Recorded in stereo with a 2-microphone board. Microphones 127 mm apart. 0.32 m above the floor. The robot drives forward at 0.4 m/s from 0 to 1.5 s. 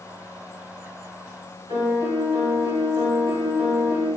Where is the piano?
40° right (ahead or behind), 1.5 m.